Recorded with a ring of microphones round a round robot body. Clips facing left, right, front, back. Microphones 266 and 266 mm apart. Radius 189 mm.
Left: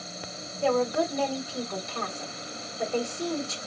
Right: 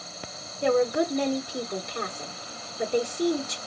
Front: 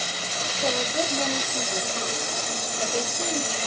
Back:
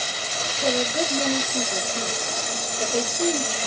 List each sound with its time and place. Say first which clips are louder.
0.6 s a woman speaking: right 2 dB, back 3 dB; 130° right, 1.2 m